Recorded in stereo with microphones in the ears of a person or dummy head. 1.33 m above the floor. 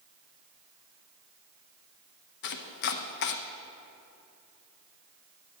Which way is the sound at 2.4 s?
55° left (ahead or behind).